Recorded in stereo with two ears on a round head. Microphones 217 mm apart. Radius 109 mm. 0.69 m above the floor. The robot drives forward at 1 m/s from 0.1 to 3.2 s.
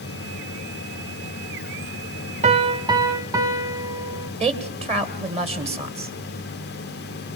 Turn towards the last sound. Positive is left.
turn(degrees=-25)  # may be behind; listen again after turning